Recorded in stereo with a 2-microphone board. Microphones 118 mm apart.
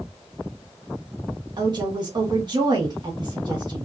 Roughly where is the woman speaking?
Right.